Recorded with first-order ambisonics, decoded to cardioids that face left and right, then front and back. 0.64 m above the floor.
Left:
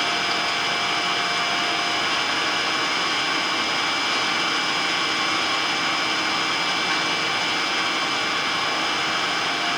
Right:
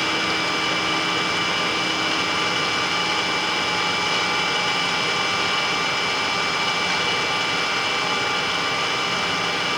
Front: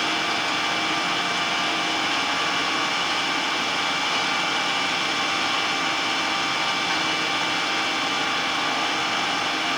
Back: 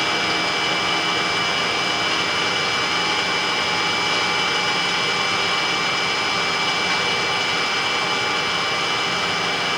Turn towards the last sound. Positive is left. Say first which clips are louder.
# right 1 dB, back 3 dB
turn(degrees=-135)